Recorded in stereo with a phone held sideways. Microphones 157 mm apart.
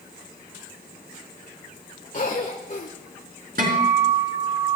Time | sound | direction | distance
2.1 | a cough | 55° left (ahead or behind) | 1.5 m
3.6 | a guitar | 65° right (ahead or behind) | 3.5 m